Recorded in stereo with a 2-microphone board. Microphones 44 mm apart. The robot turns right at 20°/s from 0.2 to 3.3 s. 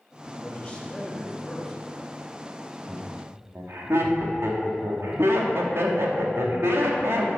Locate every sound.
0.2 s a man speaking: 145° left, 1.5 m; by 1.8 s 175° left, 1.5 m
2.9 s laughter: 55° right (ahead or behind), 2.0 m; by 7.3 s 65° right (ahead or behind), 2.0 m